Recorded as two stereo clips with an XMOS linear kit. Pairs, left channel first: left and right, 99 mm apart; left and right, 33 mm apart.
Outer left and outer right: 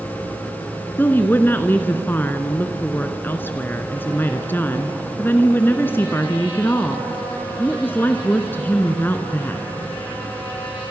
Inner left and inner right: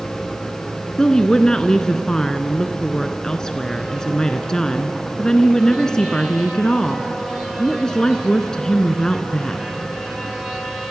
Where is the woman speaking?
20° left (ahead or behind), 1.2 m.